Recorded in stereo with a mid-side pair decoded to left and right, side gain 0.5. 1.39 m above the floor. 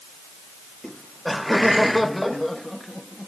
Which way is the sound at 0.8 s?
Straight ahead.